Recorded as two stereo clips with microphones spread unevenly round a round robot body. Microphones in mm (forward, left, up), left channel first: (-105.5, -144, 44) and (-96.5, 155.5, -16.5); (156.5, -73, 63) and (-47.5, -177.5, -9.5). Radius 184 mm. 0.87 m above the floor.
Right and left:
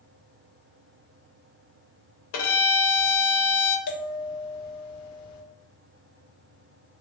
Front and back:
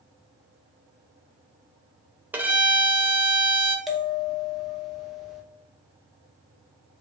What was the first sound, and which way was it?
A violin, 75° right.